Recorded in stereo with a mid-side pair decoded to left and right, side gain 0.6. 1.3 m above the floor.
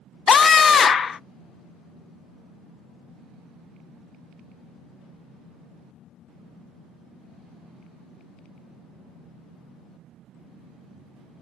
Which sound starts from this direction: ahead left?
A scream, at 0.3 s.